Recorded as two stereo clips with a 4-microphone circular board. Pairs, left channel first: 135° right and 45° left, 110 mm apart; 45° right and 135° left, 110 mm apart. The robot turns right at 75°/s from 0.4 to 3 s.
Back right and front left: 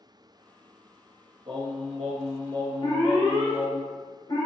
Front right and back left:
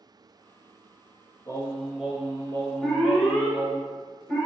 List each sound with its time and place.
1.5 s singing: 10° left, 0.6 m; by 3.8 s 125° left, 0.6 m
2.8 s an alarm: 140° right, 1.3 m; by 4.5 s 125° right, 1.3 m